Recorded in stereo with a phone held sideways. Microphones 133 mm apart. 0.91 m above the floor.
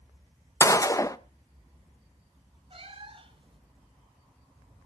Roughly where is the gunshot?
Left.